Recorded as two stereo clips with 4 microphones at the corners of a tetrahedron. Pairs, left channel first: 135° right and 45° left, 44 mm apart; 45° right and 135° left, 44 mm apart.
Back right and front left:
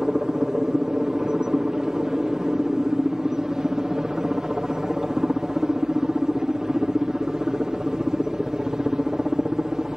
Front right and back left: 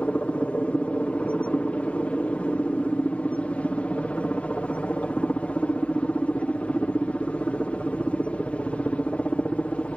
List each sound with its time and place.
0.0 s a helicopter: 15° right